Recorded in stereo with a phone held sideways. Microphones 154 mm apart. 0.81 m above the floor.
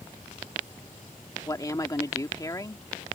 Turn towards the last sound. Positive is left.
turn(degrees=25)  # may be behind; listen again after turning